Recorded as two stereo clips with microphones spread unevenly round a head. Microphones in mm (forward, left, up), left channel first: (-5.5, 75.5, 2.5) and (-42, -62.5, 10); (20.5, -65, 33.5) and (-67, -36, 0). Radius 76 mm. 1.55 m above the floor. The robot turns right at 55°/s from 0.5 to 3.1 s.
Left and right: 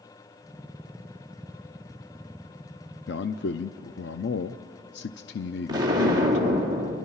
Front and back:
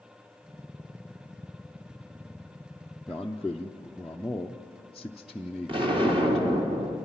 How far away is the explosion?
About 3 m.